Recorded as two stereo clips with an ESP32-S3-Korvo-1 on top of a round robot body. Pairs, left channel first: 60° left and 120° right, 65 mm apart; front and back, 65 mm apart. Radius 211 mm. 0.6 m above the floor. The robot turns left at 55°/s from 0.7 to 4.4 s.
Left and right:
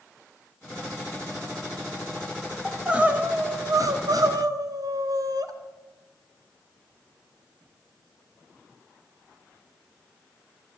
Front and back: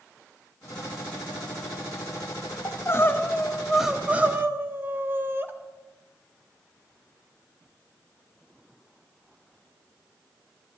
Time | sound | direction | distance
2.6 | crying | 30° right | 1.3 m